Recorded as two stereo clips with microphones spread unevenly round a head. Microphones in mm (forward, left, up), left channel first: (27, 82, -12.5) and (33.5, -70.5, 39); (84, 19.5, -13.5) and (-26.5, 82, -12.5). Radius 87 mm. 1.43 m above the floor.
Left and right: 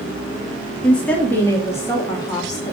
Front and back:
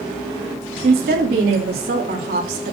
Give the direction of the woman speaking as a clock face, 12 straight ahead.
6 o'clock.